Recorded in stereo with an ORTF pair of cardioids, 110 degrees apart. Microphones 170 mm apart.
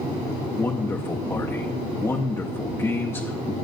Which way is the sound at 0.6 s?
15° left.